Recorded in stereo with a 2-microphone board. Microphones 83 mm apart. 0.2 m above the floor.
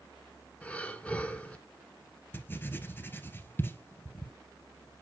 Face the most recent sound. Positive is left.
turn(degrees=25)  # may be behind; listen again after turning